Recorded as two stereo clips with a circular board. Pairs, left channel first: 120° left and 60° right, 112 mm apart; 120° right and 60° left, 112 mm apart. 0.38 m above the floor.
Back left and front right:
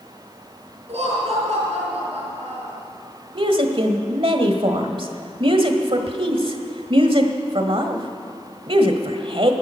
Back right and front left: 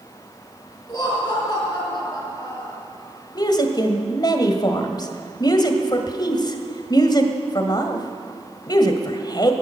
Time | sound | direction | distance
0.9 | laughter | 70° right | 5 m
3.4 | a woman speaking | 80° right | 1.5 m